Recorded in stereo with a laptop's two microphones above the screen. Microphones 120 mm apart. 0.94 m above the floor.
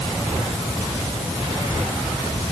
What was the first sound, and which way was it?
Only background noise.